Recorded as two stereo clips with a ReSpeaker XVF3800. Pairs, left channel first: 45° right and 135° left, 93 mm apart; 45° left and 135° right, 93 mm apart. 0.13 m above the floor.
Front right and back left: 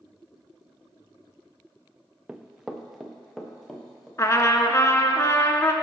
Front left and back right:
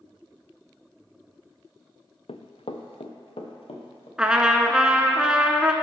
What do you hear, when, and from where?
2.3 s running footsteps: 55° left, 0.6 m; by 4.1 s 40° left, 1.8 m
4.2 s a trumpet: 60° right, 0.6 m